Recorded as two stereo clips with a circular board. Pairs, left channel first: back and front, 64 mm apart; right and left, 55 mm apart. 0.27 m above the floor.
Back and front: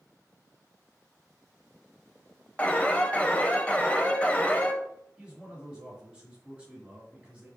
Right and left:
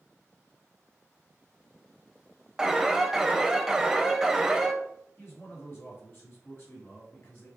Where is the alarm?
155° left, 0.6 m.